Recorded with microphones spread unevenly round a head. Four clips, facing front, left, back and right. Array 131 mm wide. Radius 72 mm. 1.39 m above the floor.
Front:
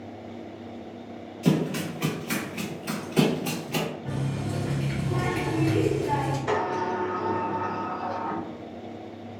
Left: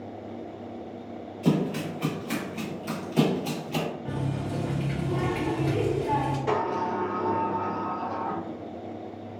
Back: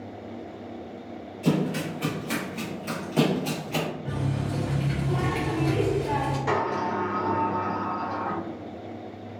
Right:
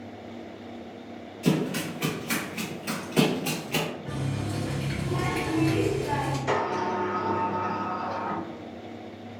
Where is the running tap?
110° left, 0.9 m.